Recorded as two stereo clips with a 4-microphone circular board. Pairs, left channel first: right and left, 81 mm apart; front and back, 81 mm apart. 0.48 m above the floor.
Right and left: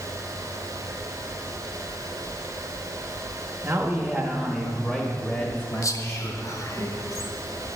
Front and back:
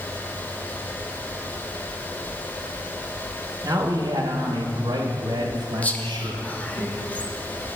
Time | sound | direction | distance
3.6 | a man speaking | 150° left | 1.1 m
5.8 | whispering | 65° right | 1.1 m